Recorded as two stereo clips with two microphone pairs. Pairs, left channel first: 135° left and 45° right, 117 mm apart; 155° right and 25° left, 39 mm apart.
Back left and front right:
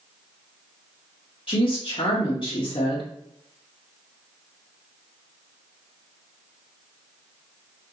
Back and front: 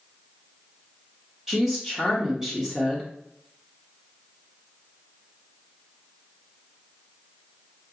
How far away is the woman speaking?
About 0.7 m.